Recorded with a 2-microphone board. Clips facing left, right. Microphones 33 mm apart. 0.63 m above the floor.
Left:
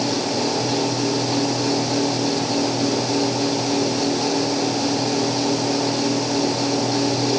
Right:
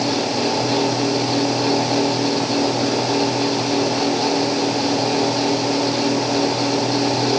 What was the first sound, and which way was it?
Only background noise.